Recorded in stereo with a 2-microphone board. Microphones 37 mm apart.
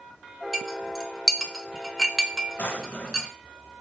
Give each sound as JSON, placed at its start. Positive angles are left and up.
{"t": 0.5, "sound": "a clink", "side_deg": 0, "distance_m": 0.5}
{"t": 2.6, "sound": "a drawer", "side_deg": 55, "distance_m": 0.8}